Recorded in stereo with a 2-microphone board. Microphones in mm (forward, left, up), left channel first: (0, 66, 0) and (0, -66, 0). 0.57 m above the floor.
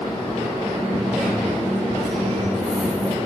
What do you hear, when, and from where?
0.8 s a dropped coin: 5° left (ahead or behind), 5 m